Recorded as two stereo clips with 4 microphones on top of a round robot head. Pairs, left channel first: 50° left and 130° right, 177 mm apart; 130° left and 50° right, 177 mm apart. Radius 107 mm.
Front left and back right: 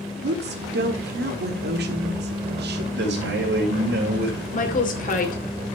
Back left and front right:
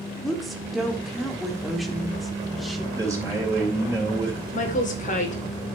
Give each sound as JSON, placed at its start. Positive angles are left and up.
{"t": 0.2, "sound": "a woman speaking", "azimuth_deg": -140, "distance_m": 1.4}
{"t": 2.9, "sound": "a man speaking", "azimuth_deg": -125, "distance_m": 3.5}
{"t": 4.5, "sound": "a woman speaking", "azimuth_deg": 90, "distance_m": 2.5}